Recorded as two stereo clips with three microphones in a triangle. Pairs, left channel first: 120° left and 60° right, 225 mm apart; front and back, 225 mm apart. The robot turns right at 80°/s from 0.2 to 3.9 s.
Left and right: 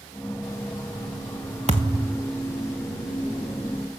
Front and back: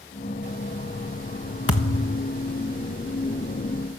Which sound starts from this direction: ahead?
A thud, at 1.7 s.